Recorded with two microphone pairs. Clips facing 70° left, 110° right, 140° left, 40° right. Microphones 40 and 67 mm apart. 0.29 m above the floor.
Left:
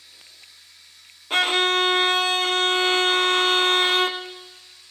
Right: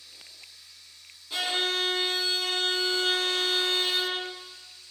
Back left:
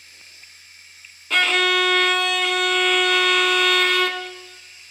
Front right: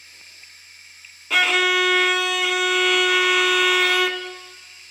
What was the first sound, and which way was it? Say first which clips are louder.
Running water: left 1 dB, even; 45° left.